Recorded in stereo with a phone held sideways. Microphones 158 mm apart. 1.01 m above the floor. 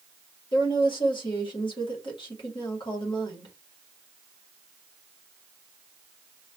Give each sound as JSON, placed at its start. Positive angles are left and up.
{"t": 0.5, "sound": "a woman speaking", "side_deg": 30, "distance_m": 1.8}